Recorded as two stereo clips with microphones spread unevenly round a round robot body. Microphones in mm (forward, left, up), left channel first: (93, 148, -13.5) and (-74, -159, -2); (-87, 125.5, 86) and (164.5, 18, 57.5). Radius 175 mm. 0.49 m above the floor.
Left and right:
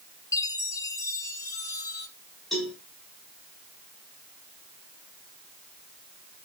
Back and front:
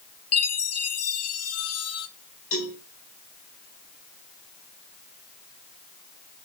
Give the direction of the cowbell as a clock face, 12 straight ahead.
7 o'clock.